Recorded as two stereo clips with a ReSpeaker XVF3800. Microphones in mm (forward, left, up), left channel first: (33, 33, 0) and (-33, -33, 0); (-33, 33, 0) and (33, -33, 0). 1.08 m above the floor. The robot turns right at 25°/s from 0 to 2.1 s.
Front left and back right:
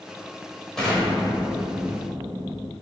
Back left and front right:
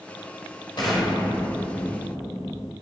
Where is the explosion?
130° left, 1.2 m; by 2.7 s 160° left, 1.2 m.